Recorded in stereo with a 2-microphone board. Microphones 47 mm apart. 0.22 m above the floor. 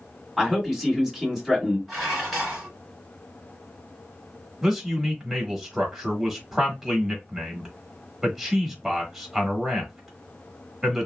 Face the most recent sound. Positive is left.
turn(degrees=-5)  # may be behind; listen again after turning